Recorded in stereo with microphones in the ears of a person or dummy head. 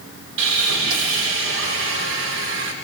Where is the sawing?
80° right, 3 m.